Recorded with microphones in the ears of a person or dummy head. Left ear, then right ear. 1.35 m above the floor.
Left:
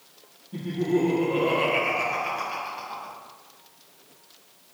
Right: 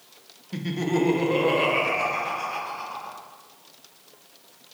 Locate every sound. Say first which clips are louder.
0.5 s laughter: left 1 dB; 70° right (ahead or behind), 0.8 m; by 3.1 s 25° left (ahead or behind), 1.6 m